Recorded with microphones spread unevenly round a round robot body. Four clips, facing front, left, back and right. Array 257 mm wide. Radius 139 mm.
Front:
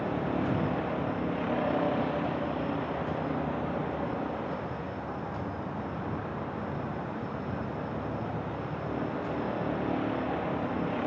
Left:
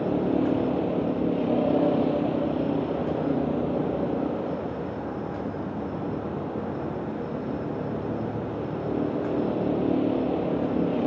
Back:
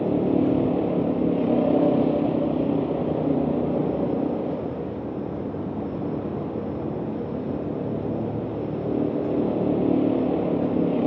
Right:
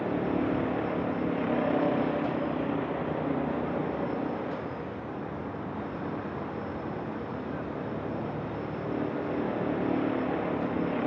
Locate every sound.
0.0 s a vehicle: 165° left